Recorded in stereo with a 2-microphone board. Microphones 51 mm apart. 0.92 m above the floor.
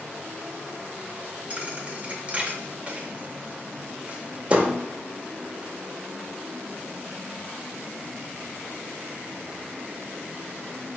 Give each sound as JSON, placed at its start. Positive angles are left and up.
{"t": 1.5, "sound": "a thud", "side_deg": -30, "distance_m": 0.6}